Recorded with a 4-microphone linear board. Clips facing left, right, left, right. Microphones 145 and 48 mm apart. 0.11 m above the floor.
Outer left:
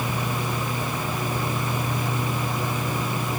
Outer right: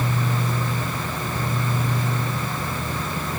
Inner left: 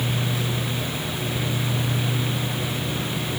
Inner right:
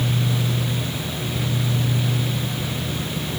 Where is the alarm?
I don't hear an alarm.